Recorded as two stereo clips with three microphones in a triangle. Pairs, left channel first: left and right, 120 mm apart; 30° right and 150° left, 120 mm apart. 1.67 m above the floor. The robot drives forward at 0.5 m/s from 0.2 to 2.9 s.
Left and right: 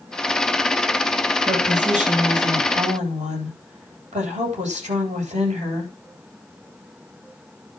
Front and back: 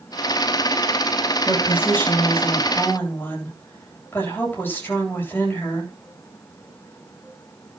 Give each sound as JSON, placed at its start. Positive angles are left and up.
{"t": 1.4, "sound": "a woman speaking", "azimuth_deg": -100, "distance_m": 9.0}